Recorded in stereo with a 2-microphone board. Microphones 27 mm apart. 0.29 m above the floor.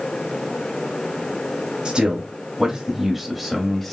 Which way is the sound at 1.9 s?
40° right (ahead or behind).